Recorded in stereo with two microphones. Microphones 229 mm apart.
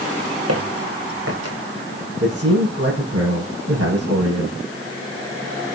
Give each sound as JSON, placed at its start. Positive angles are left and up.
{"t": 0.5, "sound": "footsteps", "side_deg": -80, "distance_m": 7.0}
{"t": 2.2, "sound": "a man speaking", "side_deg": -75, "distance_m": 7.0}